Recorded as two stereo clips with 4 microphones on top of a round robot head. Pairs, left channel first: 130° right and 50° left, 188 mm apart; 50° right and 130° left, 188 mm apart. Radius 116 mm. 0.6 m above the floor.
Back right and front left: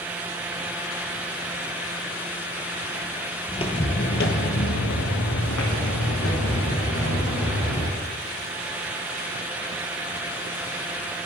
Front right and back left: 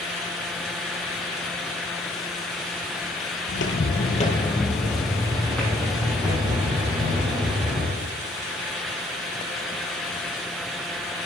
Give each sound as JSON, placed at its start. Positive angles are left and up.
{"t": 3.5, "sound": "footsteps", "azimuth_deg": -65, "distance_m": 0.9}